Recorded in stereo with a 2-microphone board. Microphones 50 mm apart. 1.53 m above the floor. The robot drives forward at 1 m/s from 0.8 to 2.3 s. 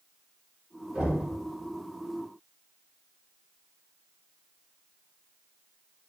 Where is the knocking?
20° right (ahead or behind), 2 m; by 1.3 s 25° right (ahead or behind), 1.7 m.